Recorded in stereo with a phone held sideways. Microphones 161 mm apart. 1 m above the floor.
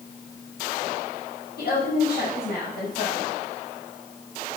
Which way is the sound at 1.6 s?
80° left.